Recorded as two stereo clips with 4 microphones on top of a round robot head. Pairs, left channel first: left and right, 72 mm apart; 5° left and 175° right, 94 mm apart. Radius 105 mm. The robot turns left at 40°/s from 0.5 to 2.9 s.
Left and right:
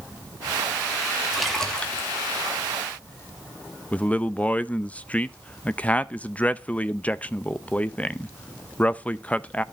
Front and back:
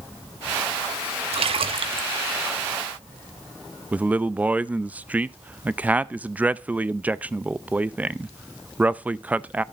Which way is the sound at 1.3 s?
175° right.